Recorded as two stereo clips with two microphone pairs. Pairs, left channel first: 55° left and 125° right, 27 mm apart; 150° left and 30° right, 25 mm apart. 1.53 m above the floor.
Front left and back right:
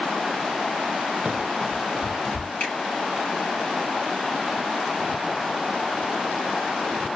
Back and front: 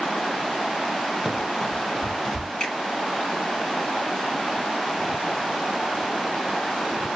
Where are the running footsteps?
100° right, 1.8 m; by 2.5 s 60° left, 1.5 m.